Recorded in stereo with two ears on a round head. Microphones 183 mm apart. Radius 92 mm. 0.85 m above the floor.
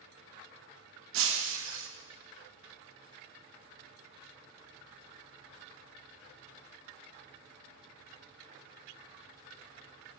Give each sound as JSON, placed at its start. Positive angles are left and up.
{"t": 1.1, "sound": "breaking glass", "side_deg": -70, "distance_m": 0.6}